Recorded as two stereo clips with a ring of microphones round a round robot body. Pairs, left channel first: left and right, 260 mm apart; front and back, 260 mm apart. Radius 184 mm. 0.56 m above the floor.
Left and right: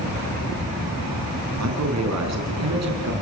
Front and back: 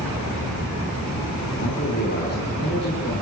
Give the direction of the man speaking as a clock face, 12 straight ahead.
2 o'clock.